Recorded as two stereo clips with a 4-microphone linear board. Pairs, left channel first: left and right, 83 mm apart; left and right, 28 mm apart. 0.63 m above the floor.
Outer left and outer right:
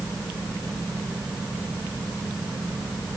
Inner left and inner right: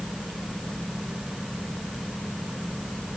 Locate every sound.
Only background noise.